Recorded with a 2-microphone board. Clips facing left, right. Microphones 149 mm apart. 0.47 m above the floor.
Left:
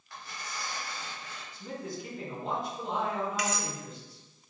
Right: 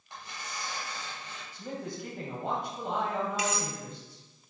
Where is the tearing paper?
25° right (ahead or behind), 3 m.